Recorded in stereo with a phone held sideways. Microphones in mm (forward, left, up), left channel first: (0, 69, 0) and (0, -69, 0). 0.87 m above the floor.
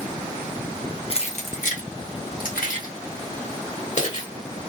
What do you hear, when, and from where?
1.1 s keys jangling: 45° left (ahead or behind), 0.9 m; by 4.3 s 55° left (ahead or behind), 2 m